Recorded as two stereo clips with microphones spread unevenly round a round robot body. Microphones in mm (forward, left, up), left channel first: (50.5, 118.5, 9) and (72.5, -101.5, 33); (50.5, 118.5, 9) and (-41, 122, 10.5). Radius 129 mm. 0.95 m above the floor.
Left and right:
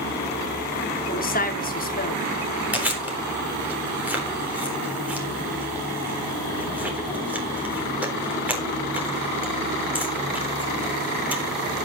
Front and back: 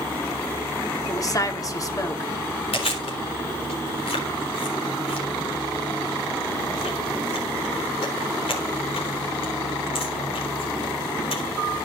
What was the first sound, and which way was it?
A woman speaking, 50° left.